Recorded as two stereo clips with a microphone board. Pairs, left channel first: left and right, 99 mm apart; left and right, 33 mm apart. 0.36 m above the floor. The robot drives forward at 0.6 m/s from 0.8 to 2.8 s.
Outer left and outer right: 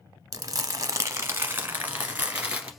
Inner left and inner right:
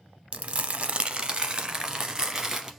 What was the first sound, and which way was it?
Crumpling, 35° right (ahead or behind).